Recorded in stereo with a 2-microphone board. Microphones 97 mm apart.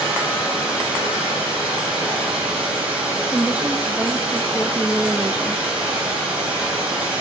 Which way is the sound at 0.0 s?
10° right (ahead or behind).